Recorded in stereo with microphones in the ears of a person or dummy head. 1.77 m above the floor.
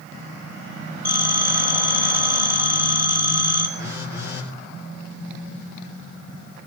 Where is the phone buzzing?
15° right (ahead or behind), 5 m.